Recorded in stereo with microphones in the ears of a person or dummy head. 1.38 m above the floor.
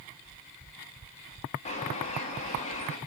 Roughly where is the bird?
Left.